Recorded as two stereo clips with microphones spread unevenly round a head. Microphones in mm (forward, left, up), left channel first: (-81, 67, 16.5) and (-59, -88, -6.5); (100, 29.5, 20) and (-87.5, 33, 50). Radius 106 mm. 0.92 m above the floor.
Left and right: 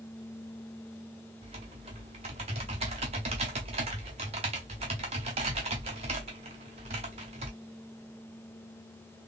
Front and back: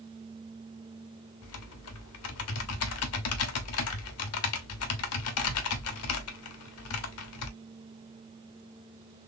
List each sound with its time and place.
1.4 s typing on a keyboard: 15° right, 0.7 m